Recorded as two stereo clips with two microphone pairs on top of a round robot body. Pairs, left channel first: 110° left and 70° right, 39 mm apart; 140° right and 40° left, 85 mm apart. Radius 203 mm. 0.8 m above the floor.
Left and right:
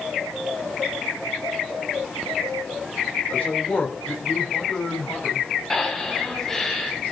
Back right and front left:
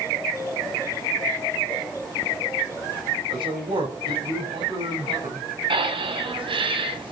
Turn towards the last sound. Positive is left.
turn(degrees=30)